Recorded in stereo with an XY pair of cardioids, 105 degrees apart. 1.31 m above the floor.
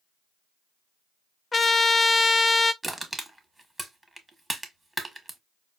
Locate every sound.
1.5 s a trumpet: 25° left, 0.5 m
2.8 s crushing: 15° right, 1.2 m